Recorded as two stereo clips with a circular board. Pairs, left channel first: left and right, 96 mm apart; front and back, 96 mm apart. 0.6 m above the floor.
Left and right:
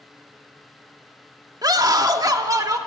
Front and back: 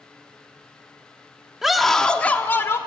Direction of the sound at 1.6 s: 95° right.